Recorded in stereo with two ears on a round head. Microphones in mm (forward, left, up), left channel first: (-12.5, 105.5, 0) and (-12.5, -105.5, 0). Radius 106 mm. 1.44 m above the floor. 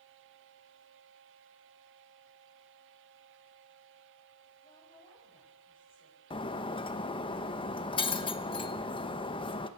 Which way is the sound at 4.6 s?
25° left (ahead or behind).